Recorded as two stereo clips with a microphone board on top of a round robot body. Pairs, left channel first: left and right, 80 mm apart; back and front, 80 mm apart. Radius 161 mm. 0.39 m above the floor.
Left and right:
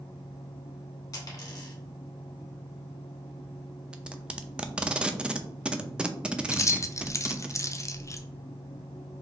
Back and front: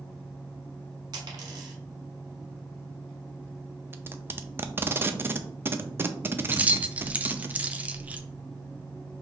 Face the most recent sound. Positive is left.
turn(degrees=65)